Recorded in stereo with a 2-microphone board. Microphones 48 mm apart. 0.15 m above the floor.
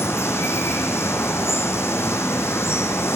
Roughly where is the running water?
Left.